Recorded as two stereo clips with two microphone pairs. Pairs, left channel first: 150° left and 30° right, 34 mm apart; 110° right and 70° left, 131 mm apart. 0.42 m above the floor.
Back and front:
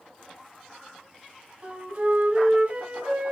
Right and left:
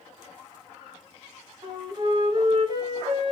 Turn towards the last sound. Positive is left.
turn(degrees=20)